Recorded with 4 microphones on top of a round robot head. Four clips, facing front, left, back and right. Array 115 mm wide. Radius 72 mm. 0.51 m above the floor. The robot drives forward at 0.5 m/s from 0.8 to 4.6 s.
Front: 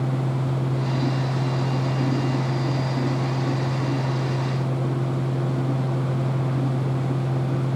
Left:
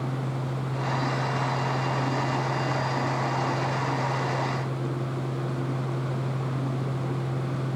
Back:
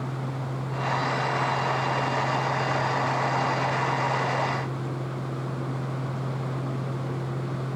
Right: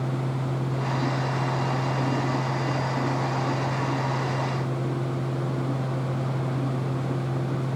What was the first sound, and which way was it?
Only background noise.